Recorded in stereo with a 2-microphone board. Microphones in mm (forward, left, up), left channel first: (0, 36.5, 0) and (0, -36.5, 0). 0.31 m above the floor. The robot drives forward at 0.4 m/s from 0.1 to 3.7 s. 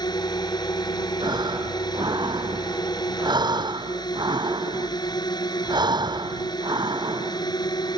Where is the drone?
75° left (ahead or behind).